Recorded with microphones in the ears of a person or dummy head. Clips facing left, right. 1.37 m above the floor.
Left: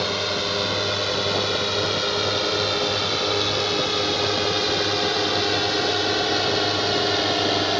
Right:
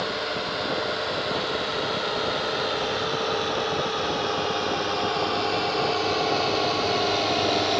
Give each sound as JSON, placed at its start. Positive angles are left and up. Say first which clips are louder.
{"t": 0.0, "sound": "a drone", "louder": "left 3 dB", "side_deg": 40}